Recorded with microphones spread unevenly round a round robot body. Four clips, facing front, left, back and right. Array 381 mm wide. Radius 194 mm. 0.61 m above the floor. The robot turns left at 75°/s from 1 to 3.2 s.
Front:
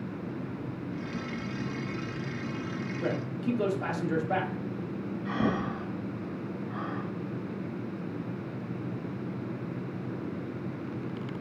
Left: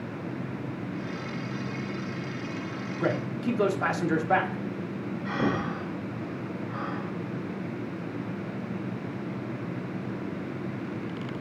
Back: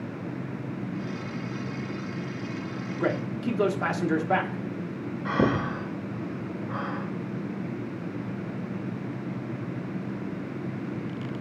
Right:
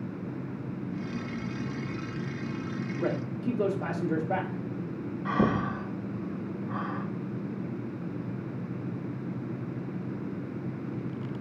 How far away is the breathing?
About 0.8 m.